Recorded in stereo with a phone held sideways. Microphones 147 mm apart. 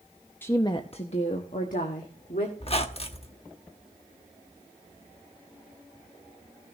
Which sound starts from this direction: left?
A squeak, at 2.6 s.